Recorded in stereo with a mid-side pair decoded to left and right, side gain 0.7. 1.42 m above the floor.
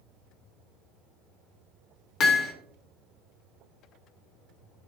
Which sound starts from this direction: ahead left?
Hammering, at 2.2 s.